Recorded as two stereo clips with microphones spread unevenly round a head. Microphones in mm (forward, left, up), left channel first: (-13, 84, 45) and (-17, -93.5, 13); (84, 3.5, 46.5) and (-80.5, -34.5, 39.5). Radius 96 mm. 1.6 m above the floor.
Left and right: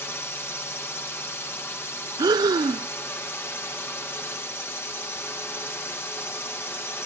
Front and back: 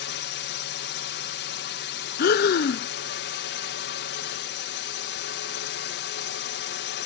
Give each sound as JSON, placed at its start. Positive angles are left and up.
{"t": 0.0, "sound": "a drone", "azimuth_deg": 10}
{"t": 2.2, "sound": "breathing", "azimuth_deg": -15}